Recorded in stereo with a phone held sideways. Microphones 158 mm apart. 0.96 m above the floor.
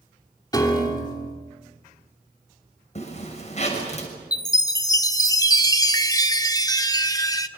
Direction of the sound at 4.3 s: 25° left (ahead or behind).